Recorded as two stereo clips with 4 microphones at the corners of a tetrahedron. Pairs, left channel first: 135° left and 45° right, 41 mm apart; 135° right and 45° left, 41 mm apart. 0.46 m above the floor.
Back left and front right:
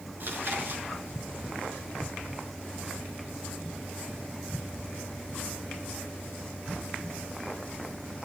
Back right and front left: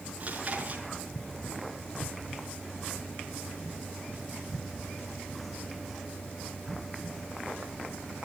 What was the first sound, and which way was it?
Chewing, 10° right.